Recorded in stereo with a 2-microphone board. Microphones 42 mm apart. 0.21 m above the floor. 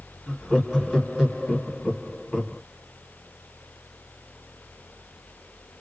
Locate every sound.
0.3 s laughter: 10° right (ahead or behind), 1.3 m